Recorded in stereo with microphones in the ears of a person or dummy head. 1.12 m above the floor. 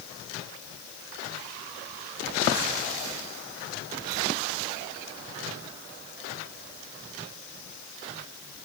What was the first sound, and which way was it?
Only background noise.